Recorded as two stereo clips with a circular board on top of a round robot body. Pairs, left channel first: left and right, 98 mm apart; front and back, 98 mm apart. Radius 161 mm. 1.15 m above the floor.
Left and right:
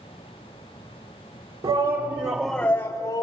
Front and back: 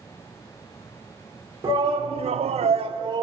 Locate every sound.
1.6 s a shout: 115° right, 1.4 m; by 3.2 s 120° left, 1.2 m